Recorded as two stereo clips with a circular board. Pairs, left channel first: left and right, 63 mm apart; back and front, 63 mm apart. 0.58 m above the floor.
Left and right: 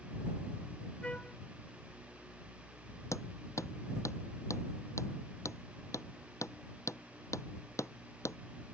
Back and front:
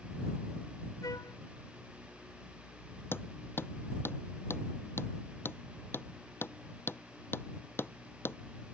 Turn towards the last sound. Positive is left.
turn(degrees=125)